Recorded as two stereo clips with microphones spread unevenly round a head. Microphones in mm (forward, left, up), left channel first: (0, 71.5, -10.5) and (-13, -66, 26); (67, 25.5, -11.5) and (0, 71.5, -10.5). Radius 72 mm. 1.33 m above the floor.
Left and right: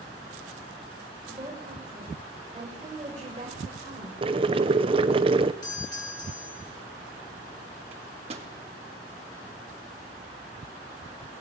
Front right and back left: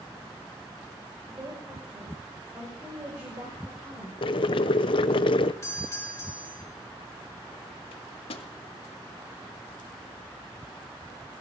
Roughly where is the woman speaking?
Behind right.